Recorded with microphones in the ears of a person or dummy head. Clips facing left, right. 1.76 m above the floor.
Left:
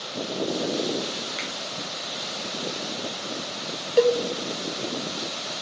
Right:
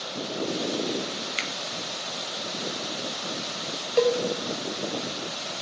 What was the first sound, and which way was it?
A finger snap, 40° right (ahead or behind).